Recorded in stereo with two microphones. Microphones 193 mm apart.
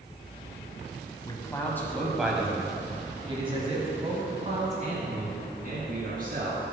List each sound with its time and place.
1.2 s a man speaking: 20° left (ahead or behind), 1.5 m; by 6.6 s 60° right (ahead or behind), 3 m